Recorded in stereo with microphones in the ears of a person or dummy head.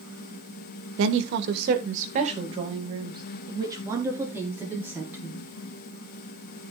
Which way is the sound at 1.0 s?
75° right (ahead or behind).